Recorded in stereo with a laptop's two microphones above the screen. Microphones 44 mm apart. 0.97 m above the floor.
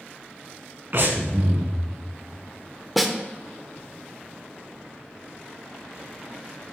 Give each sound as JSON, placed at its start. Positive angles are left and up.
{"t": 0.9, "sound": "breathing", "side_deg": -60, "distance_m": 1.5}
{"t": 3.0, "sound": "a snare drum", "side_deg": -5, "distance_m": 0.7}